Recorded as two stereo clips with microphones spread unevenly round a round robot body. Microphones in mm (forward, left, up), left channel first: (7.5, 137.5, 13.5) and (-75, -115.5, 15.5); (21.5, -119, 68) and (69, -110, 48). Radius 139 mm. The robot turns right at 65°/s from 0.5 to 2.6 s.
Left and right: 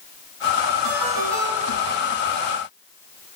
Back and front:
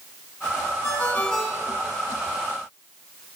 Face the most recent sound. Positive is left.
turn(degrees=-15)